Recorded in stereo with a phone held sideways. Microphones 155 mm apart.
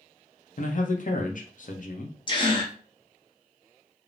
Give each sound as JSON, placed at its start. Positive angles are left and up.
{"t": 0.6, "sound": "a man speaking", "side_deg": 60, "distance_m": 0.7}
{"t": 2.3, "sound": "a gasp", "side_deg": 30, "distance_m": 0.8}